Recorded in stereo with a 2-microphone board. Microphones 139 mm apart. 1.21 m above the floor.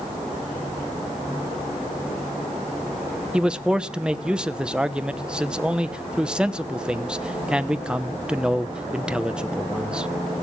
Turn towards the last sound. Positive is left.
turn(degrees=-5)  # may be behind; listen again after turning